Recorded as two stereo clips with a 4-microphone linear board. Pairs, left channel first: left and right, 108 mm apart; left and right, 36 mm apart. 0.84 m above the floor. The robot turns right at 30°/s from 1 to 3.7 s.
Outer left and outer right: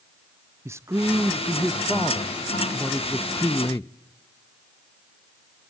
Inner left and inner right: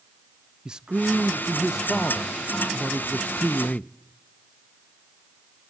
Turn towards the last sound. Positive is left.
turn(degrees=45)